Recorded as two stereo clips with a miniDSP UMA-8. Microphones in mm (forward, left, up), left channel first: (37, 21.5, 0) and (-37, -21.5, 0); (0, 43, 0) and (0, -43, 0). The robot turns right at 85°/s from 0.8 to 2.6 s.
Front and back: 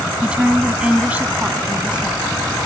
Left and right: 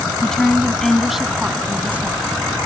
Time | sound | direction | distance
0.2 | a woman speaking | 160° left | ?